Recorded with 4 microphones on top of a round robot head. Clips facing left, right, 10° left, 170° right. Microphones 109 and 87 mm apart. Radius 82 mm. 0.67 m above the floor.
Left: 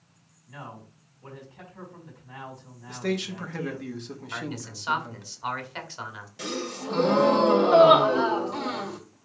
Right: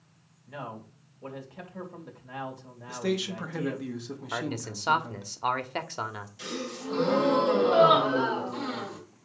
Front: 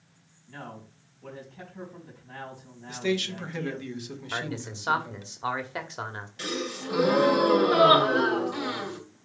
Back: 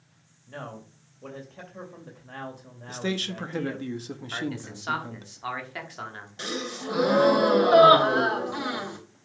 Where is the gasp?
130° left, 3 m.